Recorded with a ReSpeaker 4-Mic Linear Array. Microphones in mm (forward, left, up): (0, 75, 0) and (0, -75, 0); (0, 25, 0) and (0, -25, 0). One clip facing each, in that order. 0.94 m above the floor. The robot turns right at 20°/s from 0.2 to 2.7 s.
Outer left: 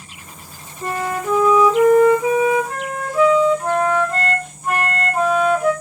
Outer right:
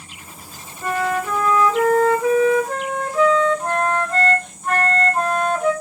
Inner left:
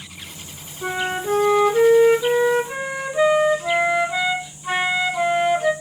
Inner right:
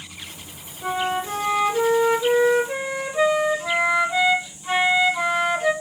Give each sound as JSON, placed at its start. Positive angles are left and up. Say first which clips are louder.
{"t": 0.8, "sound": "a flute", "louder": "outer right 1 dB, even", "azimuth_deg": 135, "distance_m": 1.0}